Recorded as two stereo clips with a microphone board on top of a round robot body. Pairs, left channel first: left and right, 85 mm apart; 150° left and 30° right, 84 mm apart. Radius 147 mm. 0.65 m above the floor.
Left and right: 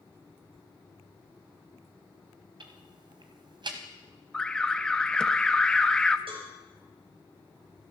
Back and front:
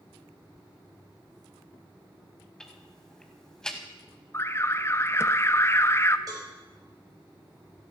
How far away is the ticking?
About 1.0 m.